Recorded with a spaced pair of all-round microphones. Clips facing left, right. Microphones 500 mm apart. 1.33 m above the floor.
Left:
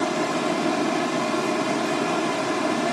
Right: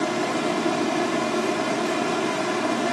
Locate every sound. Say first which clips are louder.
0.0 s running water: even; 55° left (ahead or behind), 1.2 m